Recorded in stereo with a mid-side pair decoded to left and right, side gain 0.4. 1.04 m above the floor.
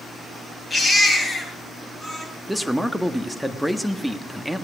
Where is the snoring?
No snoring in this recording.